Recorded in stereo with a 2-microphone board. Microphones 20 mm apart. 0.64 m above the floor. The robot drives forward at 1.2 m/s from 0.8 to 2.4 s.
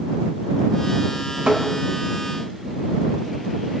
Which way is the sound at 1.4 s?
50° right (ahead or behind).